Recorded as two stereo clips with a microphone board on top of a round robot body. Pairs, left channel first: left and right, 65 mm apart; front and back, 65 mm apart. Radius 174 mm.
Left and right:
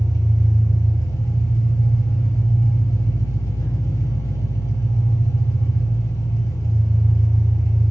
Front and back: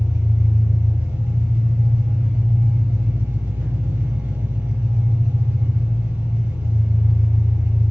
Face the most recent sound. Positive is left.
turn(degrees=125)